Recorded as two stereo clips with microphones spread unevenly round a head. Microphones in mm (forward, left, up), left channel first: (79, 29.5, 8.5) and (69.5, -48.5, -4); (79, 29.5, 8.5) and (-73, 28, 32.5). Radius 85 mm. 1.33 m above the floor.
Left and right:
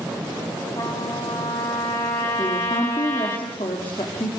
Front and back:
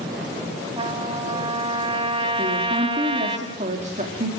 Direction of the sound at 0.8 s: 135° left.